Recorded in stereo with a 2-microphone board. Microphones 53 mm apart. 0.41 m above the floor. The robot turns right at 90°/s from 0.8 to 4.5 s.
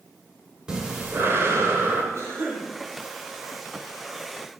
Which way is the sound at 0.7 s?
160° right.